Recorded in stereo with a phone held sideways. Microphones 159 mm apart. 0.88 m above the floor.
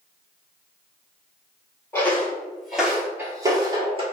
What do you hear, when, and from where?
1.9 s footsteps: 15° left (ahead or behind), 1.4 m; by 4.0 s 35° right (ahead or behind), 1.2 m